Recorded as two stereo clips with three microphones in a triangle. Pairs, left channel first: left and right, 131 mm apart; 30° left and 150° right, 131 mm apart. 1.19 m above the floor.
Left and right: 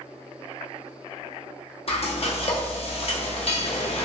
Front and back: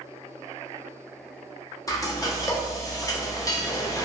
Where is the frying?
85° left, 0.6 m.